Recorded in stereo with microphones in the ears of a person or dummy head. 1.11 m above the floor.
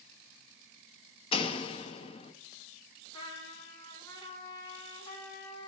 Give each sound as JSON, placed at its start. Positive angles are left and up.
{"t": 1.3, "sound": "a door slam", "side_deg": 35, "distance_m": 0.9}
{"t": 3.1, "sound": "a trumpet", "side_deg": 25, "distance_m": 2.5}